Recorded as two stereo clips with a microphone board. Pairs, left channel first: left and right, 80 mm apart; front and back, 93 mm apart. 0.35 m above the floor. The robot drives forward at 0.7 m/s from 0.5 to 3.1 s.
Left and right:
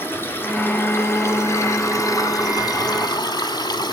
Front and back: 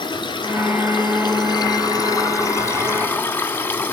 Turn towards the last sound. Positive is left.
turn(degrees=65)